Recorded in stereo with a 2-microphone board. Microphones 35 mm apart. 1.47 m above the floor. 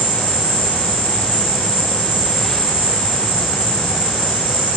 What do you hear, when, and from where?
0.0 s an insect: 5° right (ahead or behind), 4.5 m